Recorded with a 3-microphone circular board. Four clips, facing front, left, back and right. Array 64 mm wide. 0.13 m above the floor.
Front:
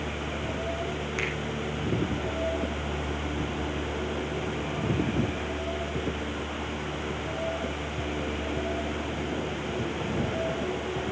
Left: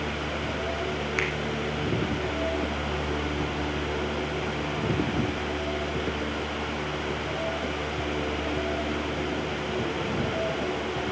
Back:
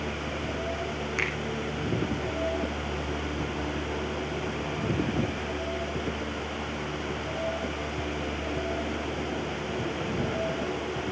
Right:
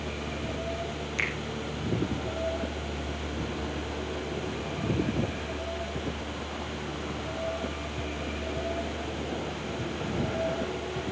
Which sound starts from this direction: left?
A finger snap, at 1.2 s.